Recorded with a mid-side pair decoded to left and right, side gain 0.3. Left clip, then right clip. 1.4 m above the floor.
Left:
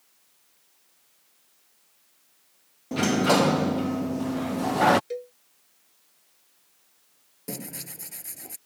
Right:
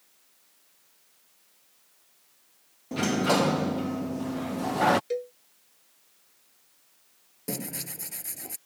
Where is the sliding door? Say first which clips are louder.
Left 3 dB; 40° left.